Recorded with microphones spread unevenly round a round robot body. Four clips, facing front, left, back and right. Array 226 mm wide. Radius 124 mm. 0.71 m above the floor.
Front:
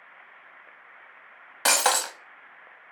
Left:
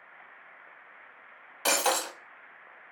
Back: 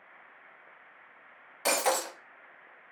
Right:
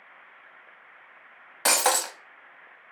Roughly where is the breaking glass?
Ahead right.